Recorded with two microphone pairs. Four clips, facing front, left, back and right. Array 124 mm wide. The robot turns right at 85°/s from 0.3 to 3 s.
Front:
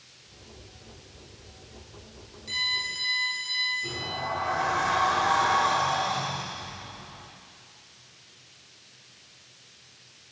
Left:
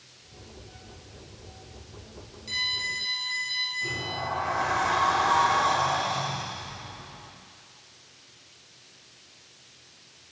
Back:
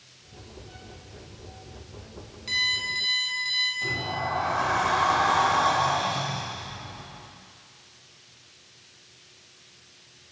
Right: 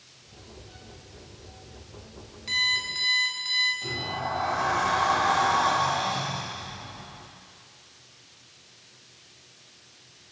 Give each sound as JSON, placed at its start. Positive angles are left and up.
{"t": 2.5, "sound": "an alarm clock", "azimuth_deg": -135, "distance_m": 4.0}
{"t": 3.8, "sound": "a sliding door", "azimuth_deg": -155, "distance_m": 4.5}